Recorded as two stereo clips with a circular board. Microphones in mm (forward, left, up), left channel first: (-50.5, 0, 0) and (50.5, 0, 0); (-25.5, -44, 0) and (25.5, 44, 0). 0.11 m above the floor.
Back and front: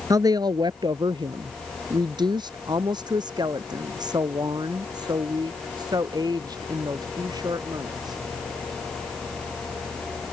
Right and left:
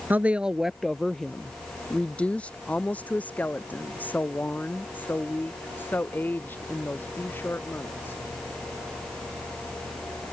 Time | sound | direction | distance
0.1 | a woman speaking | straight ahead | ?